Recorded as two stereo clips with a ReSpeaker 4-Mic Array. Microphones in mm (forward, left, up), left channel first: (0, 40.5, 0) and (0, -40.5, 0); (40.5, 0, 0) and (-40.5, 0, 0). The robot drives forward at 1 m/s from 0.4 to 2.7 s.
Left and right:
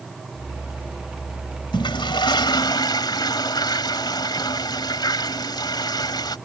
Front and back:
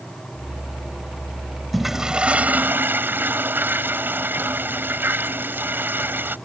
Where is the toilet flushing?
90° left; by 6.4 s 115° left.